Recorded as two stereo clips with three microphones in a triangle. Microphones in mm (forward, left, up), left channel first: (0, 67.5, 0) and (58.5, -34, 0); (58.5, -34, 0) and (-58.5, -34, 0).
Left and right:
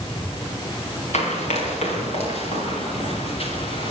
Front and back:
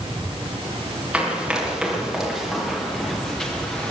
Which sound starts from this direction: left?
Running footsteps, at 1.1 s.